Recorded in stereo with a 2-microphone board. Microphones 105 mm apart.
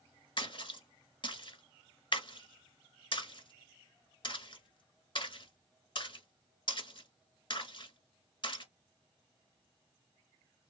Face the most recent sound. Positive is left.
turn(degrees=55)  # may be behind; listen again after turning